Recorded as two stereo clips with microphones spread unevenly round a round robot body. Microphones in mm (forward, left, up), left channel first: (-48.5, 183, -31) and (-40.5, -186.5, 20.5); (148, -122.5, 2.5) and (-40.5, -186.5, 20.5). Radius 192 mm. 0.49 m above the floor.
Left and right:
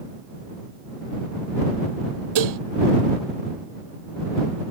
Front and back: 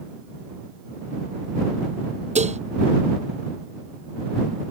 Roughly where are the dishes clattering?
Right.